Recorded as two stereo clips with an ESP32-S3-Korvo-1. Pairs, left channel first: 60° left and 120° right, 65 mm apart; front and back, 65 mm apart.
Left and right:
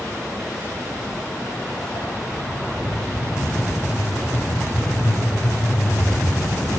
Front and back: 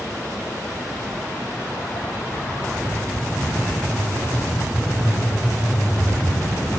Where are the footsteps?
30° left, 2.5 m; by 6.8 s 110° left, 3.5 m.